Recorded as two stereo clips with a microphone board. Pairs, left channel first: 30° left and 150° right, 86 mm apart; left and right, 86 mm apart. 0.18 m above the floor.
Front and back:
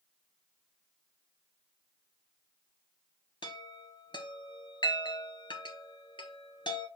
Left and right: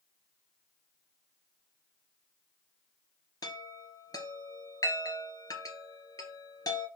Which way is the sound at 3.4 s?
50° left.